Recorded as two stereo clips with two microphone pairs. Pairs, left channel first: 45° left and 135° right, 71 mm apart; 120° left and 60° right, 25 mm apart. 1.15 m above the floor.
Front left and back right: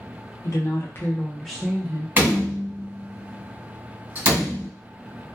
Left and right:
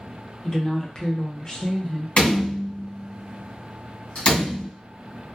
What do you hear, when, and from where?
0.4 s a woman speaking: 60° left, 0.8 m; by 2.1 s 175° right, 0.7 m
2.2 s a door slam: 165° left, 1.3 m